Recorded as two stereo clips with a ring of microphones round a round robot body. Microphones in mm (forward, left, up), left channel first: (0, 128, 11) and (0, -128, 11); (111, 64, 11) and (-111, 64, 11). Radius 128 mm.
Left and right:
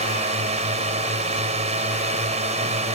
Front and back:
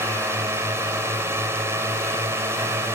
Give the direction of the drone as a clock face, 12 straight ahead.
4 o'clock.